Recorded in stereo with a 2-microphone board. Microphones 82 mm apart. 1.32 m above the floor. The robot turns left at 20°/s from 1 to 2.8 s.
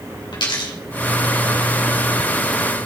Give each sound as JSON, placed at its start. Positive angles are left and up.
{"t": 0.3, "sound": "a dropped coin", "side_deg": 70, "distance_m": 3.0}